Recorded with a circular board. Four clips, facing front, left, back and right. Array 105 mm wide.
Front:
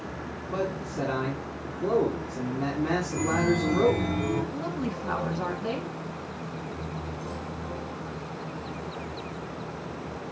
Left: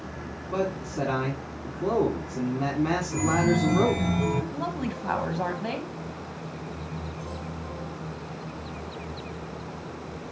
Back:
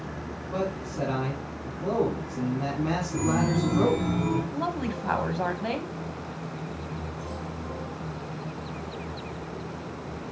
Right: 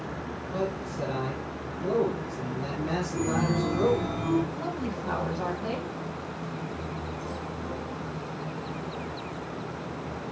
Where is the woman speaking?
145° left, 2 m.